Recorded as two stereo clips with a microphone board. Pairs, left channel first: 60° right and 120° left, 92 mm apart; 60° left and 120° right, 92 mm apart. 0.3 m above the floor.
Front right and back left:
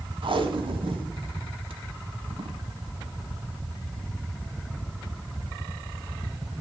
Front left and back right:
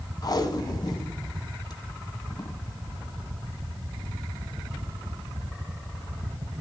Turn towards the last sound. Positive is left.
turn(degrees=105)